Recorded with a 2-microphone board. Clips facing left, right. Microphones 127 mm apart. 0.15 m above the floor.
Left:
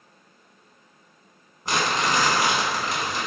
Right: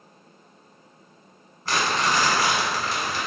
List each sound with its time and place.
1.6 s crumpling: 20° left (ahead or behind), 0.7 m